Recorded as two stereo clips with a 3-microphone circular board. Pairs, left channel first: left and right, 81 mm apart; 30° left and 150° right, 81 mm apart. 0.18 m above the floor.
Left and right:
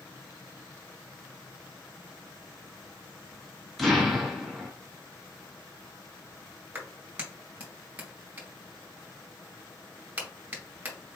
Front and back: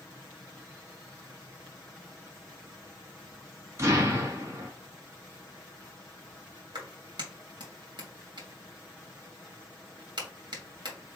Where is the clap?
160° right, 1.9 m.